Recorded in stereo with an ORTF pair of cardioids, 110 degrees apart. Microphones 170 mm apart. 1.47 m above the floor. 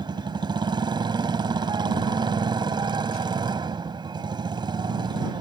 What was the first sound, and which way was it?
A motorcycle, 30° right.